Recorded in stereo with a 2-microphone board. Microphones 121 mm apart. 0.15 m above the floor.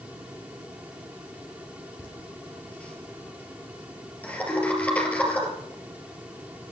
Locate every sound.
2.0 s laughter: 10° left (ahead or behind), 3.5 m
4.5 s a ringtone: 20° left (ahead or behind), 4 m